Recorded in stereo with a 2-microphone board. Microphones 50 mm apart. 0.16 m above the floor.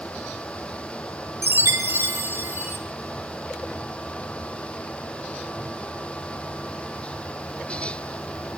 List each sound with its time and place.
1.4 s a chime: 50° right (ahead or behind), 0.6 m